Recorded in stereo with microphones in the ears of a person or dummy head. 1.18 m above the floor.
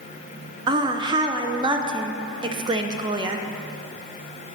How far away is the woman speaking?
About 0.6 m.